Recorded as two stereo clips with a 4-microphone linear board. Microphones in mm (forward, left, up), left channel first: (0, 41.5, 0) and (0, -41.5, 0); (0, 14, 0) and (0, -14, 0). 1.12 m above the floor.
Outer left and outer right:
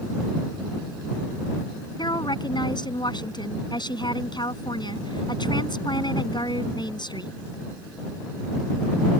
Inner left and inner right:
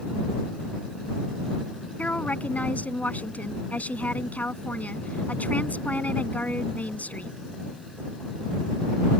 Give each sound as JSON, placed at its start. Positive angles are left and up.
{"t": 2.0, "sound": "a woman speaking", "side_deg": 65}